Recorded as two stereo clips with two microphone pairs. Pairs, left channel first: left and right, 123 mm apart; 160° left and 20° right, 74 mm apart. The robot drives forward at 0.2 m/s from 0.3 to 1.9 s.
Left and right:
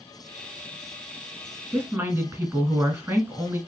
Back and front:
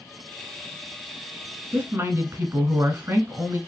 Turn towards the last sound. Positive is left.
turn(degrees=-45)